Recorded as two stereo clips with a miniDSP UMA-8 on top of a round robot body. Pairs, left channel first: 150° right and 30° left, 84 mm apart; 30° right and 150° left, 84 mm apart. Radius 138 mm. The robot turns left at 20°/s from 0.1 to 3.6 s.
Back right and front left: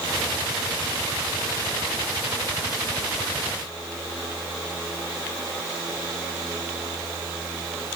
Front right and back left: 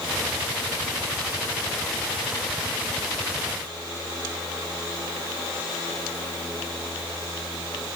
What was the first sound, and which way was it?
Only background noise.